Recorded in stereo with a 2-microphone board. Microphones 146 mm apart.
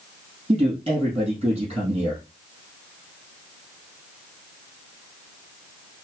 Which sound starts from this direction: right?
A man speaking, at 0.5 s.